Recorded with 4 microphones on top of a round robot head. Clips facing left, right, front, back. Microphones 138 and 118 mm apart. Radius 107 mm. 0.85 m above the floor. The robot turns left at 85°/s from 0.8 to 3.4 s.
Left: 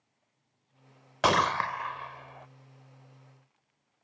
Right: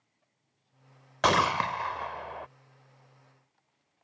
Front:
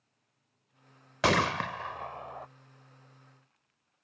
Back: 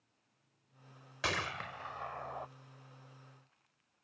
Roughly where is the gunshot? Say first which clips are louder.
Even, front 12 dB; ahead.